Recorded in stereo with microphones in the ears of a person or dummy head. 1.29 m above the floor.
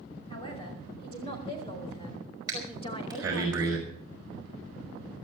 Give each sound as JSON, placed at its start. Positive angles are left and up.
{"t": 0.3, "sound": "a man speaking", "side_deg": 35, "distance_m": 5.5}
{"t": 2.5, "sound": "breathing", "side_deg": -20, "distance_m": 5.0}